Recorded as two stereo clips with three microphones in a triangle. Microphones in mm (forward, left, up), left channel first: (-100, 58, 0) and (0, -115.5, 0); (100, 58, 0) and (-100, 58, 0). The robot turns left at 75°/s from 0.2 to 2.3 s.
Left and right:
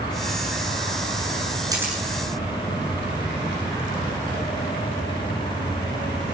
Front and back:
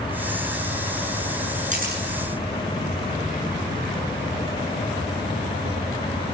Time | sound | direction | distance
1.7 | a camera shutter | 130° right | 7.5 m